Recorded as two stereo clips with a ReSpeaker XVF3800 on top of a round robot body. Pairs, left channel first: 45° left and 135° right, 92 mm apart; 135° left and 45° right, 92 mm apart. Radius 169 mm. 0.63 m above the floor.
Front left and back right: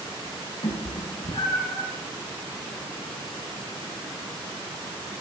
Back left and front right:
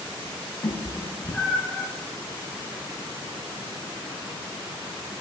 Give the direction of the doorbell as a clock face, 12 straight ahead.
No doorbell in this recording.